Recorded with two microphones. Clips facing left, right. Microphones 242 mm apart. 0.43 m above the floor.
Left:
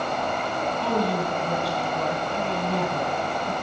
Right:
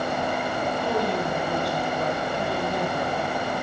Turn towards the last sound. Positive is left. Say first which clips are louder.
# left 2 dB
turn(degrees=75)  # may be behind; listen again after turning